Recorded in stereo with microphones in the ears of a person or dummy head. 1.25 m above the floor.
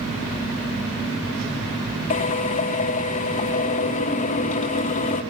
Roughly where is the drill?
Left.